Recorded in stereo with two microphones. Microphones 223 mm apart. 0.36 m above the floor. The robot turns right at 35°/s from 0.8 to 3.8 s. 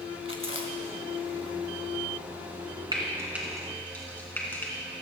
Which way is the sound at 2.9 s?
20° right (ahead or behind).